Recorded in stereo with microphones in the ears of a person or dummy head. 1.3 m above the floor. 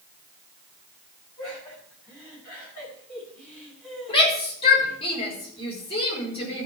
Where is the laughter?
15° left (ahead or behind), 9 m; by 5.0 s centre (ahead or behind), 11 m.